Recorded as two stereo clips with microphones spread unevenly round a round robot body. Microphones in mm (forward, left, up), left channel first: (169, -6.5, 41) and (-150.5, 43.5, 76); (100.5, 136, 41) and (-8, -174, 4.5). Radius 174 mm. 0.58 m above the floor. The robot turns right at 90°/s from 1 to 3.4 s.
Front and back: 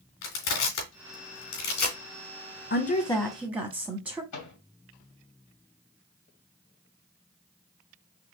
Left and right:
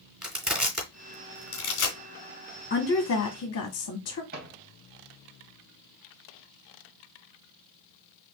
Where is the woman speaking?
15° left, 1.0 m; by 4.2 s 80° left, 1.0 m.